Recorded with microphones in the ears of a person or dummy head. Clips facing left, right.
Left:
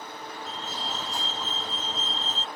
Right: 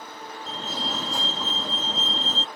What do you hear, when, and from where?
0.5 s a fire alarm: 60° right (ahead or behind)